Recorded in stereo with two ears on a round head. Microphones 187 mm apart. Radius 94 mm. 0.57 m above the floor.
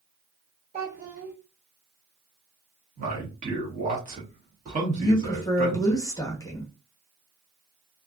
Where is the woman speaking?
15° left (ahead or behind), 0.9 m.